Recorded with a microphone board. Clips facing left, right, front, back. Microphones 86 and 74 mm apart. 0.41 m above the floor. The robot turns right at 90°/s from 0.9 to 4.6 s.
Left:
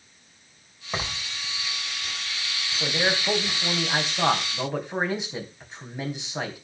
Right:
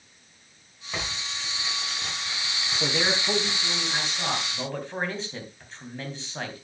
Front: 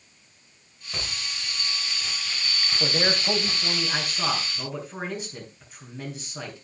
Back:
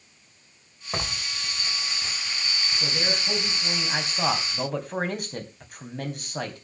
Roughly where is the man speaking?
Ahead.